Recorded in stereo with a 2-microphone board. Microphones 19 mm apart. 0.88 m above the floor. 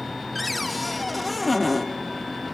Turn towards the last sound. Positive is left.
turn(degrees=5)  # may be behind; listen again after turning